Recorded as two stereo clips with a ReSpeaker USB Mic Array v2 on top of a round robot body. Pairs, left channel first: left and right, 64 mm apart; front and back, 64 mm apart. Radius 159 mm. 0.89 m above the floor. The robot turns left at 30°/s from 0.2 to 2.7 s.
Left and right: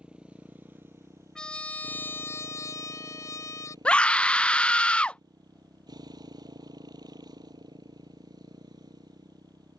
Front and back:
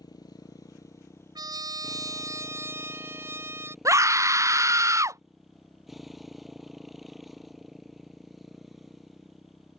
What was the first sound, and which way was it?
A motorcycle, 15° right.